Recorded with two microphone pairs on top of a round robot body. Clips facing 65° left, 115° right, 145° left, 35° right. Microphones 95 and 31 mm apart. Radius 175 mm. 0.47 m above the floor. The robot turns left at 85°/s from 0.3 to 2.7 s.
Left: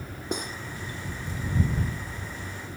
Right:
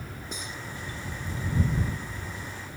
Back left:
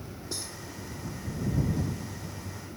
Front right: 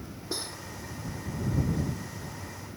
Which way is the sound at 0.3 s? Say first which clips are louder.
Left 9 dB, front right 4 dB; 35° left.